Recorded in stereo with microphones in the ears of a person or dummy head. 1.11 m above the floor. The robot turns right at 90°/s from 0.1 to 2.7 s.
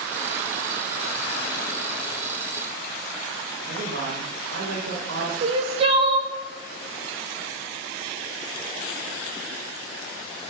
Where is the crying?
30° right (ahead or behind), 0.9 m.